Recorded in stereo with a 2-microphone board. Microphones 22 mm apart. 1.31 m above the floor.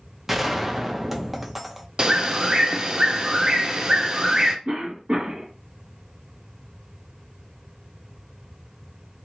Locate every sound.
0.3 s a gunshot: 10° right (ahead or behind), 0.5 m
2.0 s a bird: 40° right (ahead or behind), 0.5 m
4.7 s a cough: 60° right (ahead or behind), 1.9 m